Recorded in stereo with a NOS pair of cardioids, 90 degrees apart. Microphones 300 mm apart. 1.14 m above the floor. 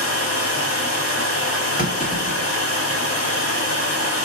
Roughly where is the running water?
Ahead left.